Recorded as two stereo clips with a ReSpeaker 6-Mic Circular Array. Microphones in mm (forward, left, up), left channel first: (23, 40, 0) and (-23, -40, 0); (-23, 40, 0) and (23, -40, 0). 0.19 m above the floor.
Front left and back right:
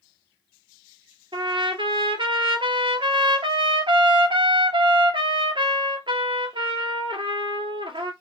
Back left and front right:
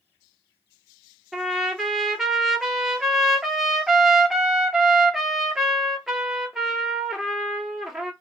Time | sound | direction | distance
1.3 | a trumpet | 145° right | 0.9 m